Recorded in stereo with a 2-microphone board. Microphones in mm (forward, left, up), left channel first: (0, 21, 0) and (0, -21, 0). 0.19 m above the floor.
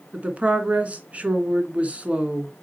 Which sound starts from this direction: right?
A woman speaking, at 0.1 s.